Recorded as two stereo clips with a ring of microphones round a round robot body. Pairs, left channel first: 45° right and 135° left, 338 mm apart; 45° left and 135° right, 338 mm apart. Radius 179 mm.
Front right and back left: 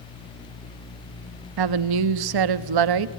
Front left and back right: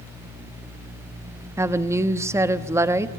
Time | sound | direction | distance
1.6 | a woman speaking | 145° left | 1.0 m